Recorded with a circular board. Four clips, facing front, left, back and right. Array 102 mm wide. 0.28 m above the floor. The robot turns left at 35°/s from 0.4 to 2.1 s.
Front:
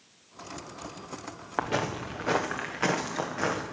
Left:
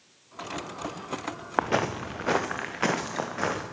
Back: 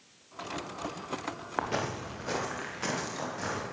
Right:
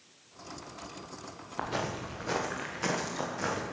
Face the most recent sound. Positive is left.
turn(degrees=60)